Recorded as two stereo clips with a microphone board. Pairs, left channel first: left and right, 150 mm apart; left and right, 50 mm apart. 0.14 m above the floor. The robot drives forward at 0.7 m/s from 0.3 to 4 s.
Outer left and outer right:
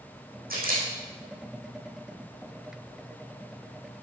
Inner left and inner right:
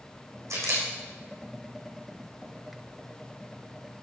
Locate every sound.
0.5 s a camera shutter: 80° right, 7 m